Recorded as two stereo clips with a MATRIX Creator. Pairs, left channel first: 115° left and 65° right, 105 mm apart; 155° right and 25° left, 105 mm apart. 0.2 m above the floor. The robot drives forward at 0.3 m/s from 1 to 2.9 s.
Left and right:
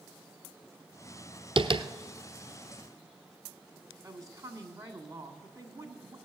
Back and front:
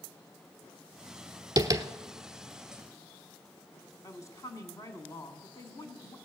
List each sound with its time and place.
1.6 s tapping: 30° right, 0.9 m; by 1.9 s 35° right, 0.8 m
4.0 s a woman speaking: 110° right, 1.7 m